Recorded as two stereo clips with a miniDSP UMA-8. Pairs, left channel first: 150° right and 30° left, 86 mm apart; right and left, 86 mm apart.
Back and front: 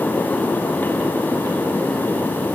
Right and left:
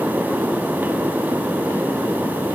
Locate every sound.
Only background noise.